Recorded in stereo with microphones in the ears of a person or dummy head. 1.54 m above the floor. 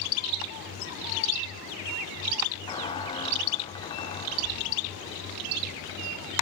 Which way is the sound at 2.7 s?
20° left (ahead or behind).